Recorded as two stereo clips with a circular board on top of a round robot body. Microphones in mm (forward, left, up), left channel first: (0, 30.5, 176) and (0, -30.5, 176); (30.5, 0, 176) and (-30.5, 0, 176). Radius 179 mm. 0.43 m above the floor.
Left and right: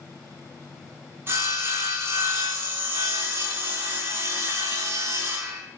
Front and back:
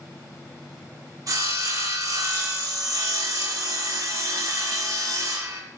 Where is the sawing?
145° right, 2 m.